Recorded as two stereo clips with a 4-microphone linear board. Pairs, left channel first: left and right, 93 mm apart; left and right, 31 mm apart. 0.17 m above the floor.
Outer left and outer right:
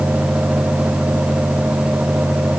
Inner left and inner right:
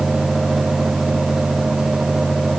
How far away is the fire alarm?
No fire alarm in this recording.